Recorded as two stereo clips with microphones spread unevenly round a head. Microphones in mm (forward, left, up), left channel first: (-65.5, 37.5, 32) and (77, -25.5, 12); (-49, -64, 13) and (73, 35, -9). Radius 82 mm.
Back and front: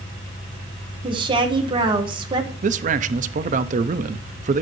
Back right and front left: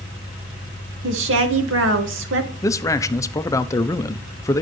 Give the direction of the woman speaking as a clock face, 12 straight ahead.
11 o'clock.